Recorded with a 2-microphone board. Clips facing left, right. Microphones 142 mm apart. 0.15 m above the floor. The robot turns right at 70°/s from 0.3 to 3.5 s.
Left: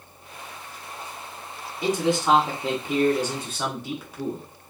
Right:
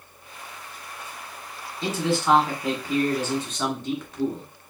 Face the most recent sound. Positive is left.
turn(degrees=10)  # may be behind; listen again after turning